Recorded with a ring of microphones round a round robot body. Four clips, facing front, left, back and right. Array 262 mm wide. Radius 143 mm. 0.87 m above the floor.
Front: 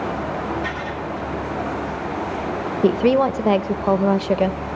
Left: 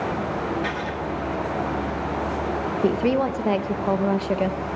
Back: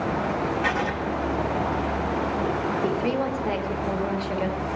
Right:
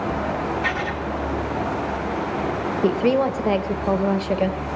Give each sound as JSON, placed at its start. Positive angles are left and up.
{"t": 0.6, "sound": "writing", "azimuth_deg": -165, "distance_m": 1.7}
{"t": 2.8, "sound": "a woman speaking", "azimuth_deg": -5, "distance_m": 0.9}